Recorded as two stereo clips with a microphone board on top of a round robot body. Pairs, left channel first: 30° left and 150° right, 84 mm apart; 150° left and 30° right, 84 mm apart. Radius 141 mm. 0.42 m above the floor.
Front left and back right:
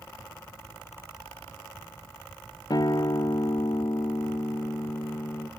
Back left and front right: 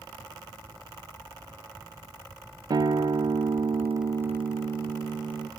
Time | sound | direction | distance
2.7 | a guitar | straight ahead | 0.6 m